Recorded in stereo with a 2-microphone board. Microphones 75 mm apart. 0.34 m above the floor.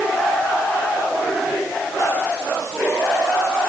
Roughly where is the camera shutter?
I don't hear a camera shutter.